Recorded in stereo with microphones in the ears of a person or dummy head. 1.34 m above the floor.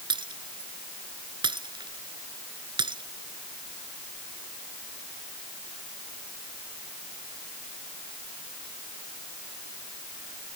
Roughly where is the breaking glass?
Right.